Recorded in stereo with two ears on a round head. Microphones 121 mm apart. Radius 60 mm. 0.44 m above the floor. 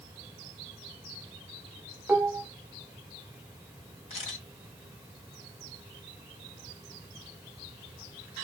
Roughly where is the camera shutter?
Left.